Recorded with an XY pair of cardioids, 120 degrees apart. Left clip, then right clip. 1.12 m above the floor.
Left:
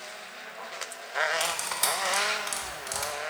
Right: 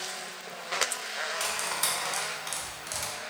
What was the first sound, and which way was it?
Cutlery clinking, 15° left.